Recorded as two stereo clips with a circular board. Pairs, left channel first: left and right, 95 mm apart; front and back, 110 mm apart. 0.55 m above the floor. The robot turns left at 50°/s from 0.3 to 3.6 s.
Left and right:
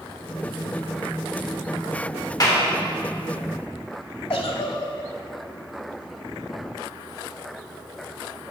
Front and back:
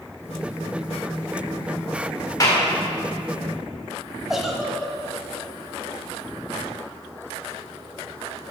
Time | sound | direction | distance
2.4 | a clap | 50° left | 1.7 m
4.3 | a giggle | 95° left | 1.1 m